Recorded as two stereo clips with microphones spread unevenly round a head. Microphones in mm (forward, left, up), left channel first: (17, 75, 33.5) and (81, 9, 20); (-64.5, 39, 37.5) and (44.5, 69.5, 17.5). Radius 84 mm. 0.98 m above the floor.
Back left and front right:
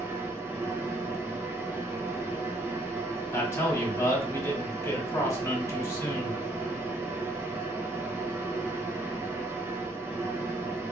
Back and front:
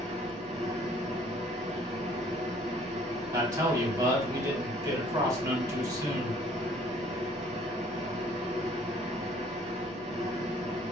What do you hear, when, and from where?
0.0 s a machine running: 10° left, 0.9 m
3.3 s a man speaking: 70° left, 1.9 m